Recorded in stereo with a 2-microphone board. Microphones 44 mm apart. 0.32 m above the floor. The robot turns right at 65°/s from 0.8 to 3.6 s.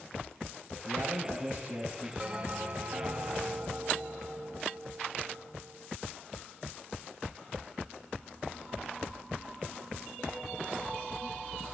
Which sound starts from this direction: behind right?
A bell, at 2.2 s.